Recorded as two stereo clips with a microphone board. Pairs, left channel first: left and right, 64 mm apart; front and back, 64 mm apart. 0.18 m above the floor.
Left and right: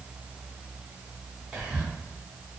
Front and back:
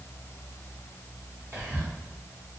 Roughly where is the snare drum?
No snare drum in this recording.